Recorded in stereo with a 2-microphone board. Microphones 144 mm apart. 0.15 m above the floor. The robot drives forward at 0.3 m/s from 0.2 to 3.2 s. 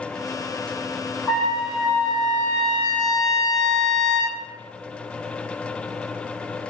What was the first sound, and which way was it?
A trumpet, centre (ahead or behind).